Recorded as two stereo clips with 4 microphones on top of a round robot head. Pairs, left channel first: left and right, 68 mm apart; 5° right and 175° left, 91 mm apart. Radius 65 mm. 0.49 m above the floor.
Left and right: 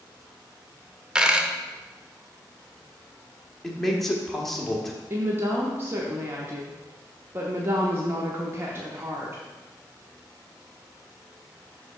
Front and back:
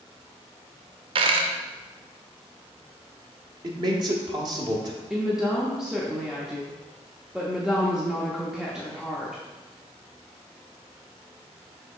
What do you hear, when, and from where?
1.1 s a dropped coin: 165° right, 0.7 m
3.6 s a man speaking: 175° left, 1.5 m
5.1 s a woman speaking: 100° right, 0.9 m